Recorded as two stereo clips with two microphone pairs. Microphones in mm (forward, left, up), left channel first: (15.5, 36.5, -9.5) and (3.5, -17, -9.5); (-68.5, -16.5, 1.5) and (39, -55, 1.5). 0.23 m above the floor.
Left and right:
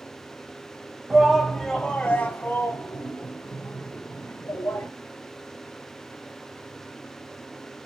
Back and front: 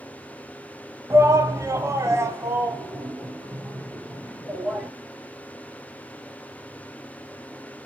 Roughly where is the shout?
Ahead right.